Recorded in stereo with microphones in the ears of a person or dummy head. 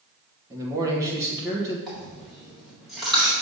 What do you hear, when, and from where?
0.5 s a man speaking: 20° right (ahead or behind), 1.5 m
1.9 s a dropped coin: 5° right (ahead or behind), 2 m